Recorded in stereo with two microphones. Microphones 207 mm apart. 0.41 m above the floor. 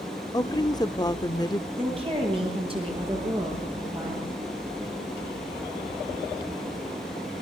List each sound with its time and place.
0.3 s a woman speaking: 20° left (ahead or behind), 0.7 m
1.8 s a woman speaking: 25° right (ahead or behind), 9.5 m